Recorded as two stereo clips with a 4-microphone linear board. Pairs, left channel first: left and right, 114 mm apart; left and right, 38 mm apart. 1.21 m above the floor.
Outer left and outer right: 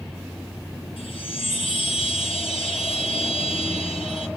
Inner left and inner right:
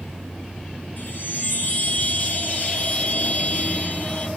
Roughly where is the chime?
Left.